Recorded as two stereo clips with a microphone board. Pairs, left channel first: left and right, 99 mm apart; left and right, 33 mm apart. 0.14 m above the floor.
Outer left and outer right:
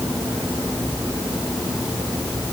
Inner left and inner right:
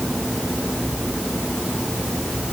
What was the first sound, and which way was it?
Only background noise.